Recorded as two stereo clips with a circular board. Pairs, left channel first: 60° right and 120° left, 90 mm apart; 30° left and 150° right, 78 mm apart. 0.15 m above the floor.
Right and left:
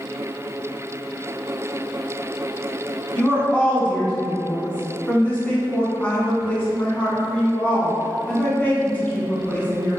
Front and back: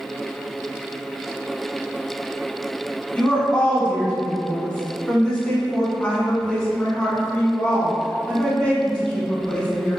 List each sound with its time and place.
3.1 s a woman speaking: 20° right, 1.1 m